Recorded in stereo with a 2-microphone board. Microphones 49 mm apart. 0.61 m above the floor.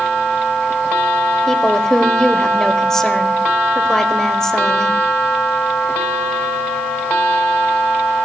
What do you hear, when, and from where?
1.5 s a woman speaking: 15° left (ahead or behind), 2 m